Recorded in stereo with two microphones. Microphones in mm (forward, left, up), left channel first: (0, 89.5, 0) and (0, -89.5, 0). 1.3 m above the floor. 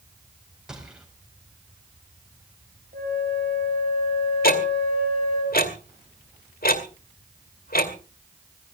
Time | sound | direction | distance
0.7 | a gunshot | 5° right (ahead or behind) | 4 m
2.9 | a flute | 55° right (ahead or behind) | 6.5 m
4.4 | ticking | 60° left (ahead or behind) | 2 m